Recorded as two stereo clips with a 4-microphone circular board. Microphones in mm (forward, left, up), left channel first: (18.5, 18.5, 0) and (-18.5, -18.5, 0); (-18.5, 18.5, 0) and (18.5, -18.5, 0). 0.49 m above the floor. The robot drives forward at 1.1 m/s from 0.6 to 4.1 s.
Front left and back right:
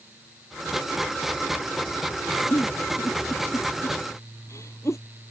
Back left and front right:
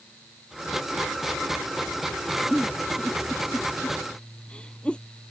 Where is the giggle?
55° left; by 5.0 s 65° left.